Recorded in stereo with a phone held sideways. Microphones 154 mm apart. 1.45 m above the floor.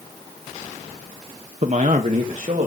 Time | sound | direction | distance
1.6 | a man speaking | 55° right (ahead or behind) | 0.6 m